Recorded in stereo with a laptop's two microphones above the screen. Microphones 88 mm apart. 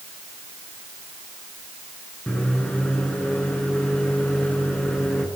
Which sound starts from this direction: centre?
A microwave, at 2.3 s.